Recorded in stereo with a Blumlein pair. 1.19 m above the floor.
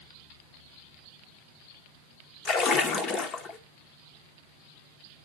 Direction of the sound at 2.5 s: 30° left.